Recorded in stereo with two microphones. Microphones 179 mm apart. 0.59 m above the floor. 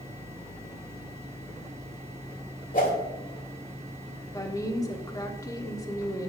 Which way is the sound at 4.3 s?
20° left (ahead or behind).